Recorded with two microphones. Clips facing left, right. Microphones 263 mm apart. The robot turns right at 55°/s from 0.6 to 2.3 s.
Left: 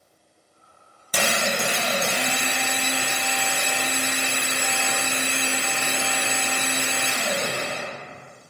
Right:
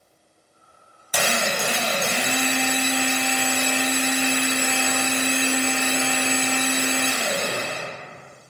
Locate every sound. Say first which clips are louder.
1.1 s a drill: even; 120° left, 0.8 m; by 7.8 s 175° right, 0.8 m